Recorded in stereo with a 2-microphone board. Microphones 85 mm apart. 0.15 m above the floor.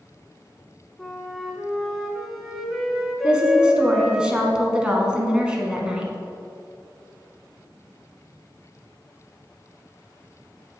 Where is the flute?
5° right (ahead or behind), 0.9 m.